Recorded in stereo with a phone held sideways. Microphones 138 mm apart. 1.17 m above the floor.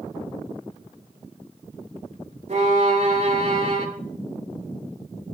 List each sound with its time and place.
2.5 s a violin: 60° right (ahead or behind), 3.5 m